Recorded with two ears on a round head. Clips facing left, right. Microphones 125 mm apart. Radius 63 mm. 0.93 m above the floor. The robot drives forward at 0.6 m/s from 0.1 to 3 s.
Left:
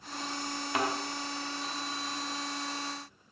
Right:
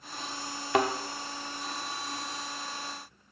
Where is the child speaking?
No child speaking in this recording.